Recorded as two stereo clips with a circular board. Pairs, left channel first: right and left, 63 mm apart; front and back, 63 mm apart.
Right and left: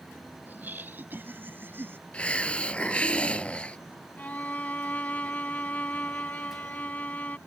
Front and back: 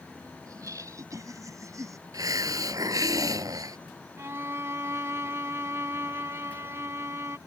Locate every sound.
0.5 s laughter: 150° left; by 2.0 s 145° left
2.1 s a hiss: 160° right
4.2 s a violin: 150° right